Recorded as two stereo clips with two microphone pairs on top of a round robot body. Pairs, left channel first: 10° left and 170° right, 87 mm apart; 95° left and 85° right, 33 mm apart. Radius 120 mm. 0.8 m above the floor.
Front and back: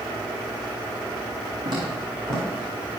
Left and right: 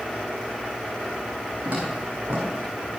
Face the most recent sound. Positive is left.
turn(degrees=-100)